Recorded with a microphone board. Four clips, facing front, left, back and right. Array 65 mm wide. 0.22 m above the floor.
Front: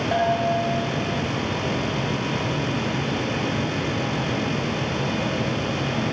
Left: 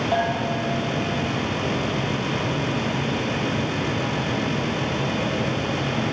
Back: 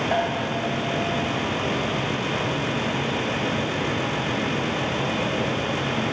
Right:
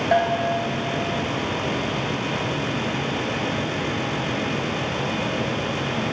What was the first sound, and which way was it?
A bell, 100° right.